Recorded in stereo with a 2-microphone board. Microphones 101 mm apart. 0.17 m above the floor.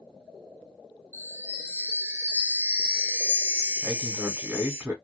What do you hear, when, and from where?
1.1 s a chime: 20° right (ahead or behind), 0.9 m
3.8 s a man speaking: 20° right (ahead or behind), 1.6 m